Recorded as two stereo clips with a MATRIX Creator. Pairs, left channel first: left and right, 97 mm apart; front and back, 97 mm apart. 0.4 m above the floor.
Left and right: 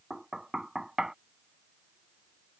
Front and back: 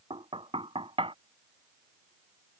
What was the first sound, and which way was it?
Knocking, 175° right.